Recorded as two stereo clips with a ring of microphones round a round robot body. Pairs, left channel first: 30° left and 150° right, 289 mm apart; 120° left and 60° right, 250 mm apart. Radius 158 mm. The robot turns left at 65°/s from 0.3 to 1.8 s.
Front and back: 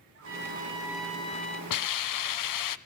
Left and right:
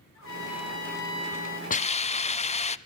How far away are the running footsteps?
No running footsteps in this recording.